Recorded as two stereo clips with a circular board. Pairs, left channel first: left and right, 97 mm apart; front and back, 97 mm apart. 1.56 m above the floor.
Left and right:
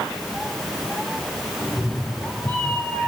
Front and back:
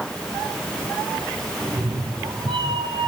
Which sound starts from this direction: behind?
A cat meowing, at 1.6 s.